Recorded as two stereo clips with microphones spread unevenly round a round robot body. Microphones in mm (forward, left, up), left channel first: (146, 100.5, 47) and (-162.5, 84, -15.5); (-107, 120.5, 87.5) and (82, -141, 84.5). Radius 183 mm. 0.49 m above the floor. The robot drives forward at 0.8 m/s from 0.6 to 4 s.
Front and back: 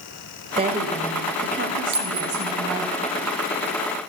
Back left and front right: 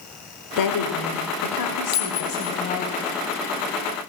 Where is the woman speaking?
120° left, 2 m; by 2.9 s 150° left, 3.5 m.